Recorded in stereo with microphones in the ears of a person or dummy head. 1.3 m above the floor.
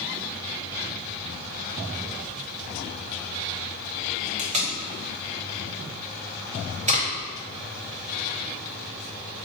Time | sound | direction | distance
4.4 | tape being pulled | 40° right (ahead or behind) | 0.8 m